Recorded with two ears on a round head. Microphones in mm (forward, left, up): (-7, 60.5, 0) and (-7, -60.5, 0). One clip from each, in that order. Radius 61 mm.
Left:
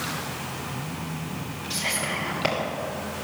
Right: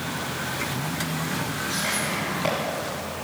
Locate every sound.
1.7 s whispering: 35° left (ahead or behind), 2.5 m